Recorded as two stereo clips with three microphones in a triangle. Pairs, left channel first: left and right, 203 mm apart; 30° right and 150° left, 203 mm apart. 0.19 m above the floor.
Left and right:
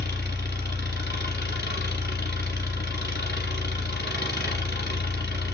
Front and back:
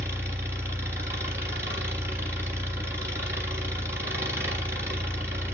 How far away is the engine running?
About 1.6 m.